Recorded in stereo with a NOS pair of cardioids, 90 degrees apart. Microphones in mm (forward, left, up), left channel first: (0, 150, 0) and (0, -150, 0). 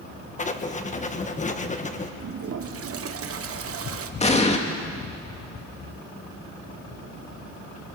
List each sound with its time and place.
0.4 s writing: 25° left, 1.5 m
2.2 s a toilet flushing: 45° right, 1.4 m
4.2 s an explosion: 20° left, 2 m